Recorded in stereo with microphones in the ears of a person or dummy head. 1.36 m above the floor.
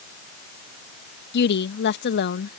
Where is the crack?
No crack in this recording.